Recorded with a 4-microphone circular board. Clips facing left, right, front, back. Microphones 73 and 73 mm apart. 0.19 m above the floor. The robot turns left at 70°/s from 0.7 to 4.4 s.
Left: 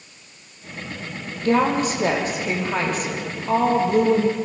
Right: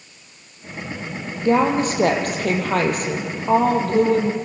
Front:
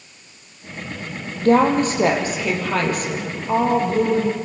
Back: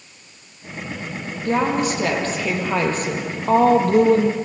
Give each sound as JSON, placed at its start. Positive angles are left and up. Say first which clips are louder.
{"t": 1.4, "sound": "a woman speaking", "louder": "right 2 dB, front 5 dB", "azimuth_deg": -15, "distance_m": 4.5}